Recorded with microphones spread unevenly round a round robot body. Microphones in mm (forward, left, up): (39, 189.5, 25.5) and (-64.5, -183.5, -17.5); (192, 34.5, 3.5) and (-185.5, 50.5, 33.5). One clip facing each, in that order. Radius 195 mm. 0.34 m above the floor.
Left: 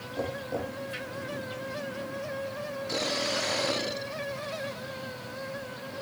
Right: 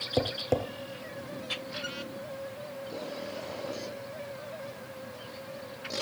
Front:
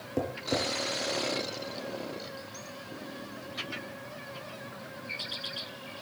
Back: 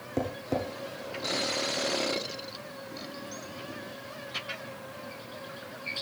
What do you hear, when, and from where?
0.2 s tapping: 95° right, 3 m